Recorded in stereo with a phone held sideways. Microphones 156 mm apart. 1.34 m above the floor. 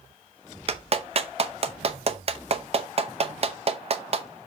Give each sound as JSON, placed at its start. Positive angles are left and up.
{"t": 0.7, "sound": "a clap", "side_deg": -45, "distance_m": 0.7}